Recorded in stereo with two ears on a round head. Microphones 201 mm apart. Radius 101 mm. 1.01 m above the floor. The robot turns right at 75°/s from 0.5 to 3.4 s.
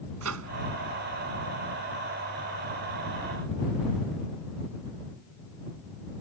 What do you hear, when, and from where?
0.2 s a microwave: 70° right (ahead or behind)